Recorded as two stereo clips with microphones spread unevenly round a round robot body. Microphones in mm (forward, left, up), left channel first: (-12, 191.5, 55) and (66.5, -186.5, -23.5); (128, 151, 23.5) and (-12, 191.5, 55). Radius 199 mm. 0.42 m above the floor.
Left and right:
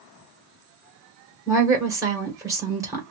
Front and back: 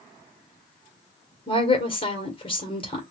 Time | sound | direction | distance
1.5 | a woman speaking | 10° right | 1.7 m